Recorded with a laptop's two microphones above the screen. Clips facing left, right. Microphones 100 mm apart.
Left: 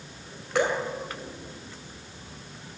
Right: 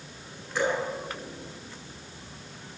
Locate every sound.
0.6 s dripping: 85° left, 3 m